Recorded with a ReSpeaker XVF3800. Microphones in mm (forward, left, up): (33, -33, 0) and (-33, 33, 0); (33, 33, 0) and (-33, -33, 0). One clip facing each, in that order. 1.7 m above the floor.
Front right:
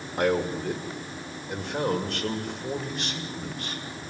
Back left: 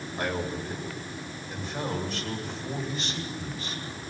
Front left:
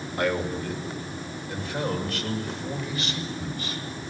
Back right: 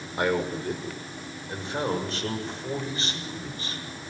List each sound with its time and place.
0.2 s a man speaking: 65° right, 6.5 m; by 3.8 s 75° right, 8 m